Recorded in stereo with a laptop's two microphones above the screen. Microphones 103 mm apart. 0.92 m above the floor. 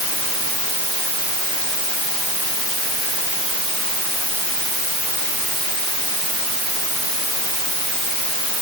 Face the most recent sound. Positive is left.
No sound to turn to.